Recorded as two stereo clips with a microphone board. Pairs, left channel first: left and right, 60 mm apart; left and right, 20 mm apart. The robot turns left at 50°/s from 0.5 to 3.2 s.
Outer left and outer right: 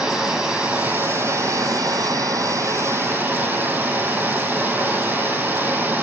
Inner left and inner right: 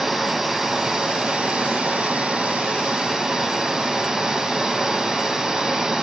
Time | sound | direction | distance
0.0 | running water | 20° right | 2.5 m